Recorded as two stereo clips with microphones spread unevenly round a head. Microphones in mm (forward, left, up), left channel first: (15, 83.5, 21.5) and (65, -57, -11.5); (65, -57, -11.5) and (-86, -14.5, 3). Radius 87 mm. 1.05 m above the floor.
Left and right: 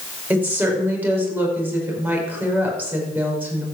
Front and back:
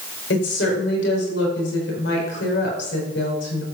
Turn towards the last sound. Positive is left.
turn(degrees=10)